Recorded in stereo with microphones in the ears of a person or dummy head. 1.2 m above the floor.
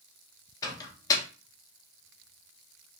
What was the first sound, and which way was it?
A microwave, 25° left (ahead or behind).